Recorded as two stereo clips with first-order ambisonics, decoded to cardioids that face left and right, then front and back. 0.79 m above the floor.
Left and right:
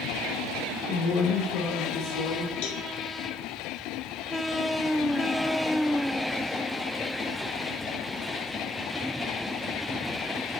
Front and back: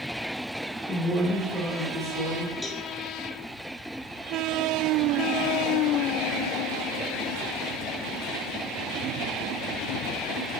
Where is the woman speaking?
90° left, 2.5 m; by 2.5 s 75° left, 3 m.